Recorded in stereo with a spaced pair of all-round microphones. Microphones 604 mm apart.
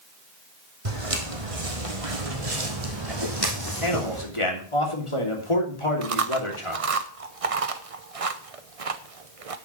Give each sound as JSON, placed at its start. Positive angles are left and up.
{"t": 0.8, "sound": "footsteps", "side_deg": -55, "distance_m": 3.0}
{"t": 3.8, "sound": "a man speaking", "side_deg": 50, "distance_m": 3.0}
{"t": 6.0, "sound": "chewing", "side_deg": -60, "distance_m": 1.0}